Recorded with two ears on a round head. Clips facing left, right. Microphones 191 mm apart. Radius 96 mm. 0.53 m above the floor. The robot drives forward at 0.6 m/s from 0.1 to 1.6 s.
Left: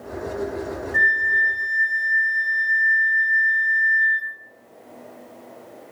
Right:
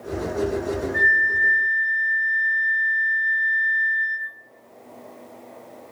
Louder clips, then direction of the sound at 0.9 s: Right 2 dB; 35° left (ahead or behind).